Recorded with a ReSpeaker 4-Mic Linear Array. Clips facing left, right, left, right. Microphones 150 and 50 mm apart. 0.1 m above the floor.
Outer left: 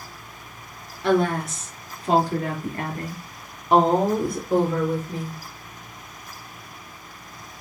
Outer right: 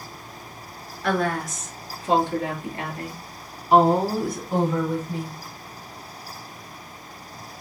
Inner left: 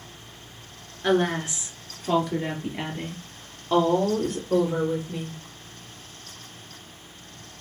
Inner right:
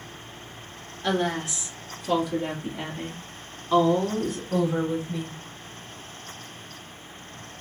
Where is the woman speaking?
20° left (ahead or behind), 1.2 m; by 5.4 s 55° left (ahead or behind), 2.5 m.